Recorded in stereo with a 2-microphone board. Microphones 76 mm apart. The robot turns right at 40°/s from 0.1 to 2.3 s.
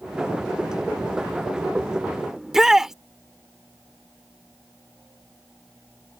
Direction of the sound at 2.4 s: 5° right (ahead or behind).